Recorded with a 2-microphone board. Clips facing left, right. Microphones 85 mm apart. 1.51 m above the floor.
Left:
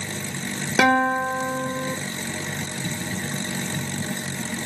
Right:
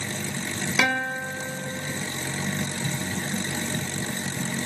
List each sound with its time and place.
0.8 s a guitar: 40° left (ahead or behind), 0.6 m